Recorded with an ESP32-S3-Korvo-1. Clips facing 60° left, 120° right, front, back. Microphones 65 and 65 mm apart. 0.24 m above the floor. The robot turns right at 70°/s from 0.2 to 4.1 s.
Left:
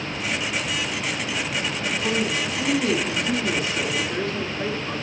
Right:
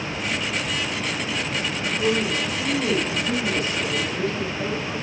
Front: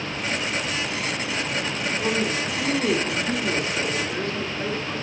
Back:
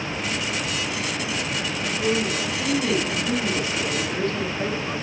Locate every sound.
2.0 s a woman speaking: straight ahead, 2.5 m; by 5.0 s 145° left, 2.5 m